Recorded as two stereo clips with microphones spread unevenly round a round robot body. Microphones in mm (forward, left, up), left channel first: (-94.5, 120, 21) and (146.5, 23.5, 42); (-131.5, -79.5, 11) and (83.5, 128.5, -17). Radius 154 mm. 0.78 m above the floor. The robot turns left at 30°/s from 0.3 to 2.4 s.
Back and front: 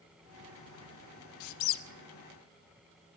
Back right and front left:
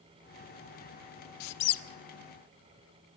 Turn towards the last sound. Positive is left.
turn(degrees=160)